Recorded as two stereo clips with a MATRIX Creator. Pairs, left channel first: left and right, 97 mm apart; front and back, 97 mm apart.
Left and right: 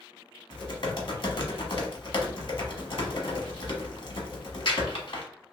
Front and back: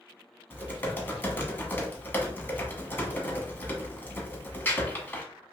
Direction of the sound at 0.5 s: 65° left.